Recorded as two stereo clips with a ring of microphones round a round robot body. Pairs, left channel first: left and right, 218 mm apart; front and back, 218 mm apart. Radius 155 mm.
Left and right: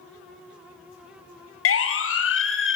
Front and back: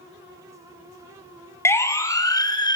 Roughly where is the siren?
Left.